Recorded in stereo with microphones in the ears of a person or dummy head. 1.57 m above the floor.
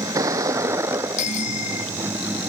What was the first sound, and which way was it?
A vehicle, 20° right (ahead or behind).